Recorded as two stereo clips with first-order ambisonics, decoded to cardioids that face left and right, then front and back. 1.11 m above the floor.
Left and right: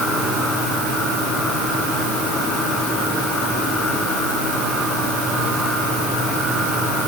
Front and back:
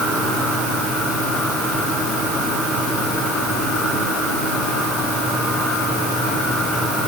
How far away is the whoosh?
No whoosh in this recording.